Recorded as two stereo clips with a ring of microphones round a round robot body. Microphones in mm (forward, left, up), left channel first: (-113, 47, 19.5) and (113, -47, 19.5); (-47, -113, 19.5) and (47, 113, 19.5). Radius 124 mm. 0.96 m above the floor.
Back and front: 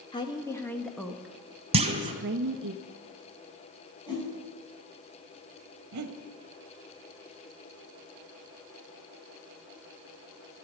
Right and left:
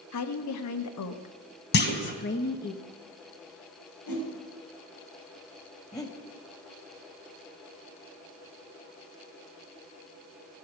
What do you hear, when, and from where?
0.1 s a woman speaking: 130° right, 1.4 m; by 2.7 s 55° right, 1.0 m
1.7 s a clunk: 80° right, 1.1 m
4.1 s a whoosh: 130° right, 4.5 m
5.9 s breathing: 35° right, 1.4 m